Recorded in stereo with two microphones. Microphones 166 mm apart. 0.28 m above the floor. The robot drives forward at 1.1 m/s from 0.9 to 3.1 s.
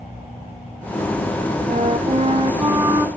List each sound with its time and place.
1.7 s a flute: 45° right (ahead or behind), 0.7 m; by 3.1 s 15° right (ahead or behind), 1.5 m